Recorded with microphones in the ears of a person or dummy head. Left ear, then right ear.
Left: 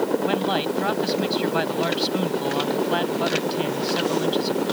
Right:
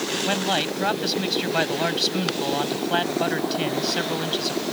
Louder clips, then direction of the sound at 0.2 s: Even; 15° right (ahead or behind).